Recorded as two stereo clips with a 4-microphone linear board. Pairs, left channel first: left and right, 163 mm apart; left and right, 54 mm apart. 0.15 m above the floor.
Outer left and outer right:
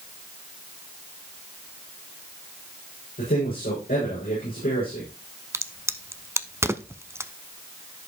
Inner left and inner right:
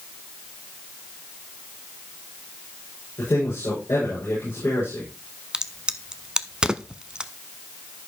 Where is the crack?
15° right (ahead or behind), 0.5 m.